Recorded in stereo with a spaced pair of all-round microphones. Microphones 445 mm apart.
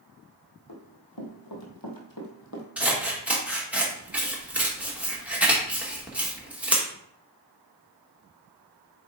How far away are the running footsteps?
About 2 m.